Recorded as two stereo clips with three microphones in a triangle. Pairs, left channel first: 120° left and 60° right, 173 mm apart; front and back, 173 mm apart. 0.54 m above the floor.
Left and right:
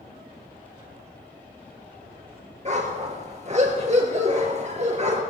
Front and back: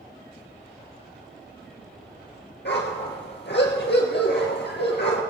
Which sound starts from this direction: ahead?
A dog barking, at 2.6 s.